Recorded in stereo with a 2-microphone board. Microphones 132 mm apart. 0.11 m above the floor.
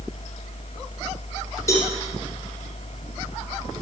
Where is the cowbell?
25° left (ahead or behind), 2.5 m.